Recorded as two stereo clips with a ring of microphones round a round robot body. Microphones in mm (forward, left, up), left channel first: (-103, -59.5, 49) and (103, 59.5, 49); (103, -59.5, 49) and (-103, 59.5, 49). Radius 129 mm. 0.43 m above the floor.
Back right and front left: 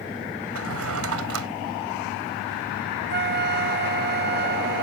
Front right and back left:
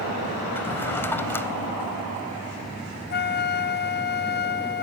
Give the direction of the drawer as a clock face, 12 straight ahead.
10 o'clock.